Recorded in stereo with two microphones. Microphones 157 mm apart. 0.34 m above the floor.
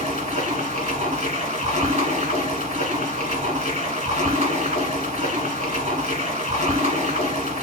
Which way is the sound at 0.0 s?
50° right (ahead or behind).